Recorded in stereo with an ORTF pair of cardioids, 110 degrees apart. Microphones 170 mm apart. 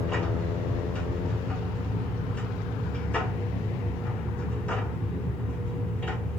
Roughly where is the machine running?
Ahead.